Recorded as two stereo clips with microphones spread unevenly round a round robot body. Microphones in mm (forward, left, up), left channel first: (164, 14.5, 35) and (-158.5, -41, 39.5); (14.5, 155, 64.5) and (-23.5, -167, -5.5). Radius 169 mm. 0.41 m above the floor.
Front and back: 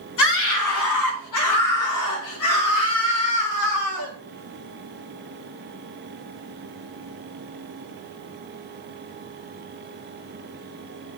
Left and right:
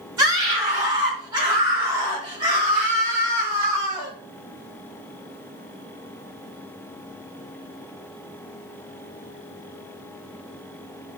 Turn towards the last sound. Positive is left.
turn(degrees=-20)